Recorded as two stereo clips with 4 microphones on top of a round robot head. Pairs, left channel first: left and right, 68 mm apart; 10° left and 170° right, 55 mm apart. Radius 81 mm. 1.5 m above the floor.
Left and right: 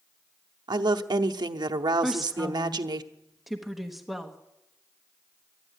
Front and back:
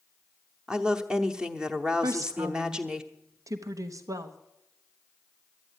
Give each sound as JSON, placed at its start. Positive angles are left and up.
{"t": 0.7, "sound": "a woman speaking", "azimuth_deg": -95, "distance_m": 0.8}
{"t": 2.0, "sound": "a woman speaking", "azimuth_deg": 180, "distance_m": 1.1}